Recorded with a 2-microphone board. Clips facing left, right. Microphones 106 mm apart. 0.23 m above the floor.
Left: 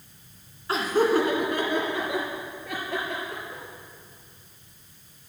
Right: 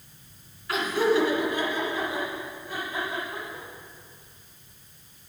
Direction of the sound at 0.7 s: 30° left (ahead or behind).